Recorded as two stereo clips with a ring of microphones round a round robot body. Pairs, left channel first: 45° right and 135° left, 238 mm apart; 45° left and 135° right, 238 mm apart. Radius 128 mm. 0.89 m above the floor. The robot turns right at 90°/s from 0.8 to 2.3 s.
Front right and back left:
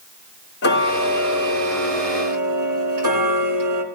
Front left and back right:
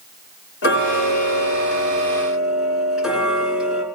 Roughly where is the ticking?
Ahead.